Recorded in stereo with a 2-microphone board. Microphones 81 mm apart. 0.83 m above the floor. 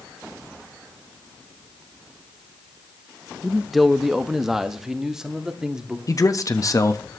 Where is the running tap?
I don't hear a running tap.